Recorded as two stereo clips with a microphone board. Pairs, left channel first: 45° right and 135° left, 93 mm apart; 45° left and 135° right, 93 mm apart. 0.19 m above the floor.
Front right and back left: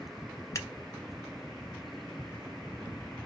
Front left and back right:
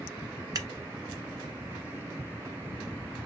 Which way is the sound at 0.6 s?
95° right.